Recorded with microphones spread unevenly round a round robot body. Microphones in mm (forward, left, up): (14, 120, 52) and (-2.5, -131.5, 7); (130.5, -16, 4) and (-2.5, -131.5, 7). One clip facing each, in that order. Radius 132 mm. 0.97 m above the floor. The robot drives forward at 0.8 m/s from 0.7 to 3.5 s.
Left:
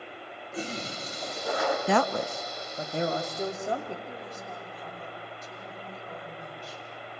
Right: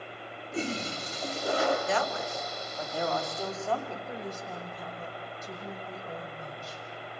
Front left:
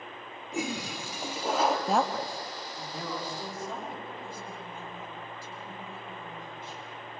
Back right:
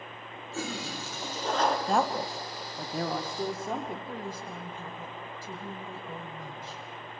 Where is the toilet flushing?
30° right, 3.5 m; by 1.8 s 45° right, 2.5 m.